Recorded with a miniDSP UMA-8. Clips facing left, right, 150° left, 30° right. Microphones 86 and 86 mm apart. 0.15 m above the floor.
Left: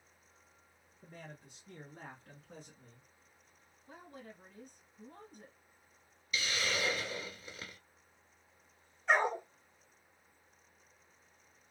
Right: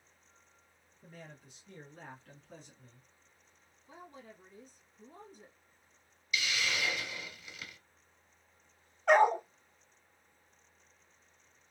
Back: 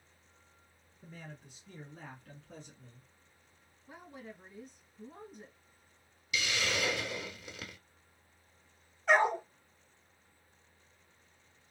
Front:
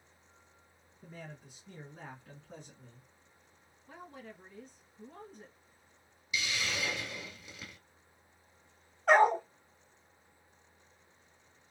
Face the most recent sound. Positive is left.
turn(degrees=-65)